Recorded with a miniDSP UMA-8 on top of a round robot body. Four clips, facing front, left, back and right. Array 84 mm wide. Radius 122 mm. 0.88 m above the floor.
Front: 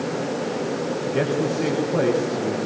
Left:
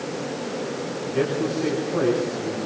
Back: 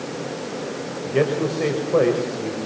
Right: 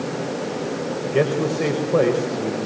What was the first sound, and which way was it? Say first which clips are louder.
A man speaking: right 3 dB, back 3 dB; 130° right.